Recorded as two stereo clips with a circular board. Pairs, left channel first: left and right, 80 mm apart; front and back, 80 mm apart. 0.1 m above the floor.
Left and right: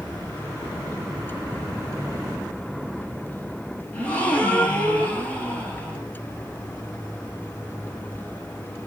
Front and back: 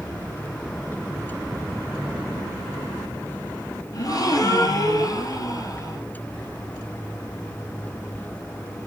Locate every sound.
3.9 s a gasp: 20° left, 1.7 m